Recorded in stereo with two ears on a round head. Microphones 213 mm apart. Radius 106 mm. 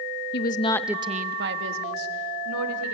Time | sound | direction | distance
0.3 | a woman speaking | 45° left (ahead or behind) | 1.0 m